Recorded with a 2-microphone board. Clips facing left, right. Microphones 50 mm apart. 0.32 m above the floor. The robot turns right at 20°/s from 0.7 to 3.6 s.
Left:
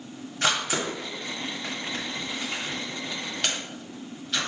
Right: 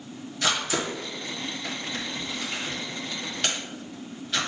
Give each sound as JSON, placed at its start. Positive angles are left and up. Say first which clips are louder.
{"t": 0.4, "sound": "a camera shutter", "louder": "left 1 dB", "side_deg": 45, "distance_m": 1.2}